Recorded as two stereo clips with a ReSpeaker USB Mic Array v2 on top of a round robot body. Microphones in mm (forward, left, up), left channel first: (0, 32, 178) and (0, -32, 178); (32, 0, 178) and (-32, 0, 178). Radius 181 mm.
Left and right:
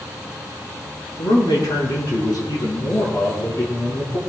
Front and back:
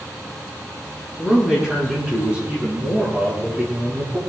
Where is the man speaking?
95° left, 7.5 m; by 4.2 s 130° left, 6 m.